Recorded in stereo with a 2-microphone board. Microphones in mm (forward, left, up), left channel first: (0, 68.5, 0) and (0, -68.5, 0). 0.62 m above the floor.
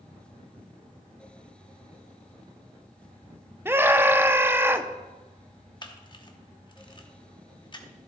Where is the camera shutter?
35° left (ahead or behind), 1.1 m.